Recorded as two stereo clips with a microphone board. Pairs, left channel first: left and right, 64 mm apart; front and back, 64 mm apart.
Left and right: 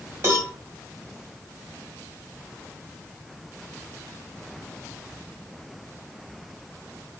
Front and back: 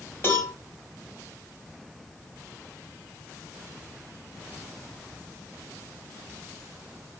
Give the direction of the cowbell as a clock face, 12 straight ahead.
2 o'clock.